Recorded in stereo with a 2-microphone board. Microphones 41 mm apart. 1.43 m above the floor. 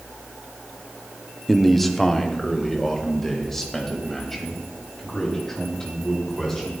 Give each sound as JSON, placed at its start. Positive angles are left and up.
{"t": 1.5, "sound": "a man speaking", "side_deg": 5, "distance_m": 0.6}